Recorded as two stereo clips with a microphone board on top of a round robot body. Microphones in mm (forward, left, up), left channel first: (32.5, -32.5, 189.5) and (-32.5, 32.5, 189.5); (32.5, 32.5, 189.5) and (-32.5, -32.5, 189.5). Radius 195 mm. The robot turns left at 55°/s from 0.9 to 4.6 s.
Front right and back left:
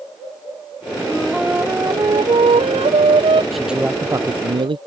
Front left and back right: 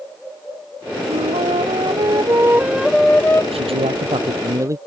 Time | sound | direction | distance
1.1 | a flute | 125° right | ?
3.5 | a man speaking | 135° right | ?